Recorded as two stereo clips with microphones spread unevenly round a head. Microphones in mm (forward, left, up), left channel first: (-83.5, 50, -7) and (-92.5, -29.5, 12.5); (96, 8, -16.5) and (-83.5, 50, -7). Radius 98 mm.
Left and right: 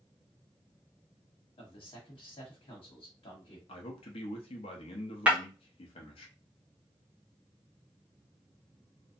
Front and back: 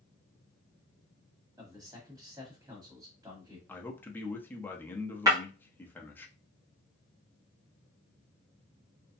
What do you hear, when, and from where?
1.6 s a man speaking: 90° left, 1.1 m
3.7 s a man speaking: 65° left, 0.6 m
5.3 s breaking glass: 140° right, 0.9 m